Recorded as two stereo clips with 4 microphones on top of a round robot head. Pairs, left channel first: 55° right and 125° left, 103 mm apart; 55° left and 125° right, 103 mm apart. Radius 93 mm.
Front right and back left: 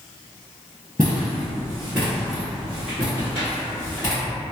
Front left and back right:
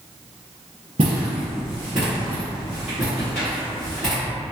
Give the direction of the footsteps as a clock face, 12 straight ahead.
6 o'clock.